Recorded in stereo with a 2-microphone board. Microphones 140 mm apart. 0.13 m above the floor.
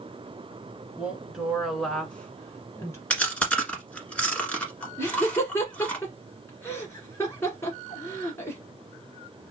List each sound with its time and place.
1.0 s a woman speaking: 5° right (ahead or behind), 1.8 m; by 3.0 s 20° left (ahead or behind), 1.4 m
3.1 s chewing: 10° left (ahead or behind), 1.4 m
5.0 s laughter: 20° left (ahead or behind), 1.1 m